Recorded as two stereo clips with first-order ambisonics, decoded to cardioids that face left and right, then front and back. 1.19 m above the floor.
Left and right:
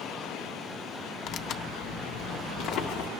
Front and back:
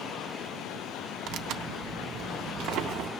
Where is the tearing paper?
140° left, 0.6 m.